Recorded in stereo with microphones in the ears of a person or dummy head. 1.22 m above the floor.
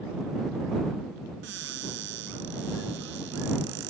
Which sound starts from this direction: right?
A cupboard door, at 1.4 s.